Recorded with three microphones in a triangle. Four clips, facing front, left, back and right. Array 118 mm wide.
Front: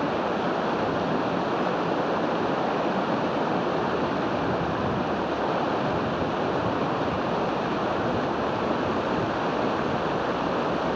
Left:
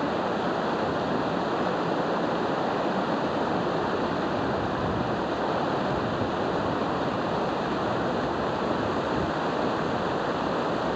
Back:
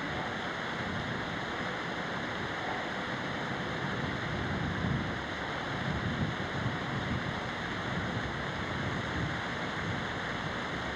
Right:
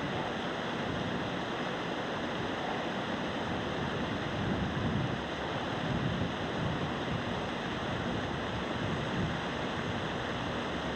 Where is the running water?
35° left.